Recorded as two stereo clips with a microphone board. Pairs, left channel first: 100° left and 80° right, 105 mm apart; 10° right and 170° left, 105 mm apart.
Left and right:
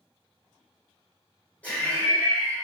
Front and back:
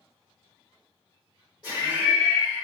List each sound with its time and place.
1.6 s laughter: 30° left, 1.8 m